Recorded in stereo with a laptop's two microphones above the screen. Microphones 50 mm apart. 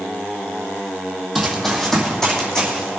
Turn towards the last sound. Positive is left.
turn(degrees=20)  # may be behind; listen again after turning